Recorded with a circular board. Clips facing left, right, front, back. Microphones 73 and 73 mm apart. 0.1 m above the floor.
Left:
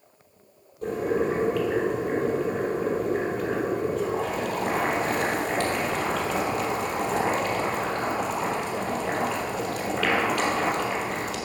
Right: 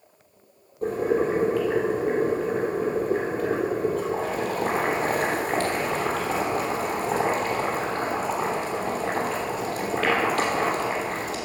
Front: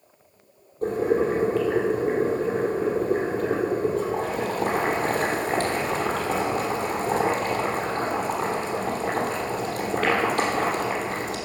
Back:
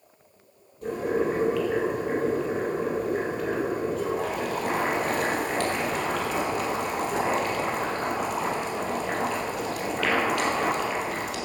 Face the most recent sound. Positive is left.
turn(degrees=-45)